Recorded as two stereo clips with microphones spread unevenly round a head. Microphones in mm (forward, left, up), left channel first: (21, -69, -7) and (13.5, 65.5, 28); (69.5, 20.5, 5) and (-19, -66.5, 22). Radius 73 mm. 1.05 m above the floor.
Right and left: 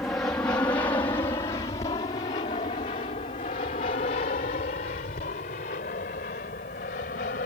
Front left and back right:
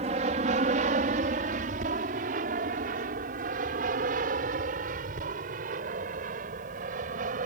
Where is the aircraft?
165° right; by 7.5 s 120° right.